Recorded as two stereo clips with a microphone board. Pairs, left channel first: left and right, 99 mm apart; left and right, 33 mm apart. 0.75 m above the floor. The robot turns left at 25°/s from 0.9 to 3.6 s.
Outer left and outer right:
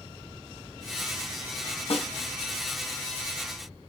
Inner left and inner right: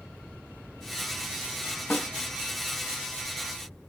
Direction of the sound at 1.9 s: 80° left.